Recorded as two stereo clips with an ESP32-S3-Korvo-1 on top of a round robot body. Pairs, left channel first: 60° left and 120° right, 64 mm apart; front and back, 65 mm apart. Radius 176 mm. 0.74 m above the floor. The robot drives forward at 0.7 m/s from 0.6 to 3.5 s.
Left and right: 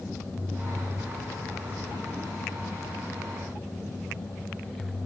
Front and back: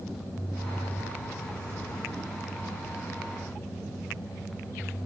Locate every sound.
Only background noise.